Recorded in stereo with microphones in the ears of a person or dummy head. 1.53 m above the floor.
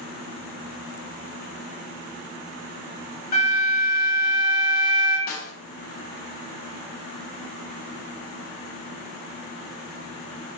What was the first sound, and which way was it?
A flute, 50° left (ahead or behind).